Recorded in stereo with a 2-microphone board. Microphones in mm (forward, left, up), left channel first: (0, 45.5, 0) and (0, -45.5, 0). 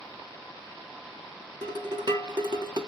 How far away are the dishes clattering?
About 0.9 m.